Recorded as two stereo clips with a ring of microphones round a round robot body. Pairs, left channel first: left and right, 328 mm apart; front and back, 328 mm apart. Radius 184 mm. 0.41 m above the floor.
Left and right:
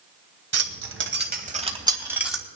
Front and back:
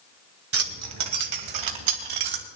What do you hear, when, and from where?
0.5 s keys jangling: 130° right, 1.9 m; by 2.5 s straight behind, 2 m